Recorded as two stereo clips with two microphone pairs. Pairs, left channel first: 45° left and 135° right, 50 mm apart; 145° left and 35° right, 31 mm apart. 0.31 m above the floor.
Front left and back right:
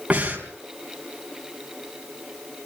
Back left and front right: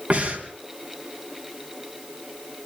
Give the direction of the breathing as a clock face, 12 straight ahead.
2 o'clock.